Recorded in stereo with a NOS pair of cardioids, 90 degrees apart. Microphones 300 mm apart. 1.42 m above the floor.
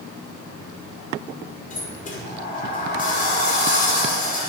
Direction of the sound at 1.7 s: 25° left.